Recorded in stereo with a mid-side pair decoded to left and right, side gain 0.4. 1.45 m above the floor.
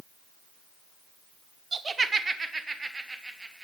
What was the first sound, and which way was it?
Laughter, 40° right.